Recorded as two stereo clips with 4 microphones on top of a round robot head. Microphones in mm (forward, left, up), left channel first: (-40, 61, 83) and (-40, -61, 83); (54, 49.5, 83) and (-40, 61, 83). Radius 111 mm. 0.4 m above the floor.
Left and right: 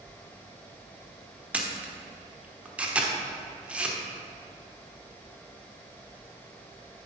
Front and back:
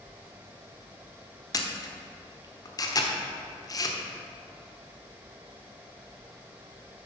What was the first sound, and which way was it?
A camera shutter, 15° right.